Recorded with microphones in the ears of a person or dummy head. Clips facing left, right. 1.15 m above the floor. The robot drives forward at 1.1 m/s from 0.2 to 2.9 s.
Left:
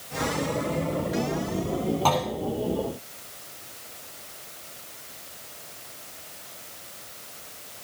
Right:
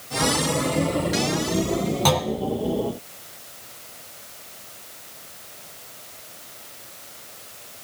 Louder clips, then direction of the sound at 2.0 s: Right 2 dB; 20° right (ahead or behind).